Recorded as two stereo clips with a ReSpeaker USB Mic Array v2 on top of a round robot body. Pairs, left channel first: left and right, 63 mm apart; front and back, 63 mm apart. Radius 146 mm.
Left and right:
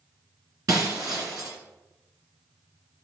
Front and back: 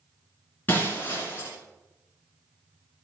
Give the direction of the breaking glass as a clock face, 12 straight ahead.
2 o'clock.